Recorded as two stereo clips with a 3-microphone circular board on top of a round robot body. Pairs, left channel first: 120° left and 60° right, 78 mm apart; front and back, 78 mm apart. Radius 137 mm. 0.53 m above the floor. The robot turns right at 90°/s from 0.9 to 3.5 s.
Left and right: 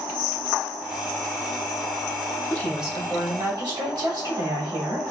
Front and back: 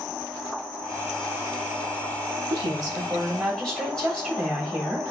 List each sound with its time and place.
2.5 s a woman speaking: 170° right, 2.5 m; by 5.1 s 80° right, 2.5 m